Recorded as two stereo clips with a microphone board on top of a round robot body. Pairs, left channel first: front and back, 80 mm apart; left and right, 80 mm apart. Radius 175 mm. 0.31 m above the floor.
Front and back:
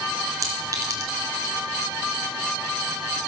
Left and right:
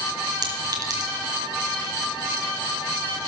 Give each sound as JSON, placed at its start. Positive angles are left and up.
{"t": 0.4, "sound": "a clink", "azimuth_deg": -130, "distance_m": 3.5}